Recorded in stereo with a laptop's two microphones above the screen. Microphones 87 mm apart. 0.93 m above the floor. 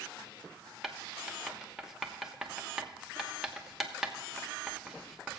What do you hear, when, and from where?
0.8 s writing: 5° right (ahead or behind), 0.8 m